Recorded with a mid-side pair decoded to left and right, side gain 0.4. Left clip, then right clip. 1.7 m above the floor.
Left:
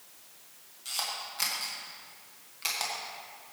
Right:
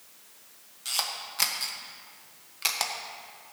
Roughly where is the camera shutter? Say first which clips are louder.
Right 3 dB; ahead right.